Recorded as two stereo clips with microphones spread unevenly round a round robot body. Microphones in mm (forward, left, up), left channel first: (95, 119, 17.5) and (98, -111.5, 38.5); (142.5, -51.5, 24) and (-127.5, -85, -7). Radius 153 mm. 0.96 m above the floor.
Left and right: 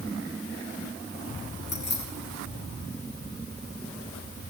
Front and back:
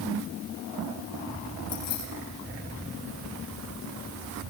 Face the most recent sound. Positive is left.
turn(degrees=50)